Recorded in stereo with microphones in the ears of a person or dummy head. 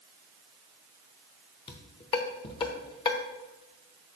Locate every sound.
1.7 s dishes clattering: 30° left (ahead or behind), 1.0 m